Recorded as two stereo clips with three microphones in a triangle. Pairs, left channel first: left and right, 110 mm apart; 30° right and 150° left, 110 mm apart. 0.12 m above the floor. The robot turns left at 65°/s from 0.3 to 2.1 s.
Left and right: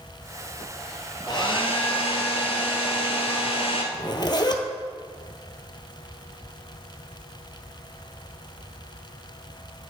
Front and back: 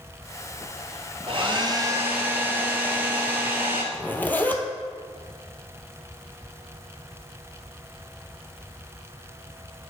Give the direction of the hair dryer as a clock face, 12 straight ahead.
8 o'clock.